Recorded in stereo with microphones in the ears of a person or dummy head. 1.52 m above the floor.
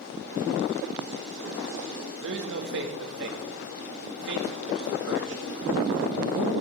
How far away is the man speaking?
About 2 m.